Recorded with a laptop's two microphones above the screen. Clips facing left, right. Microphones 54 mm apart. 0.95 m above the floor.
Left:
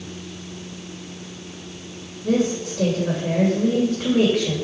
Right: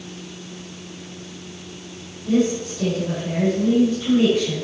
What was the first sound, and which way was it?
A woman speaking, 85° left.